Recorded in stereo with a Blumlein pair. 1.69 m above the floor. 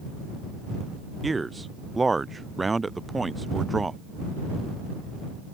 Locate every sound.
1.2 s a man speaking: 10° right